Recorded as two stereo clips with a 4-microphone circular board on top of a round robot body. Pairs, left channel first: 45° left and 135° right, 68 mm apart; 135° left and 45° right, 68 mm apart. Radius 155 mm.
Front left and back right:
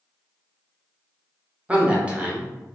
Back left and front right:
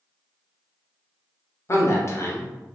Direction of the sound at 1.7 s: 160° left.